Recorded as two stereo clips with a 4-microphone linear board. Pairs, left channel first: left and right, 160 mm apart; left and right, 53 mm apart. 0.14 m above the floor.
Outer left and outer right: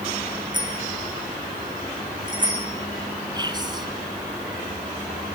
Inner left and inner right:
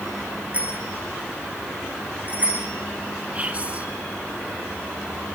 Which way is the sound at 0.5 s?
25° right (ahead or behind).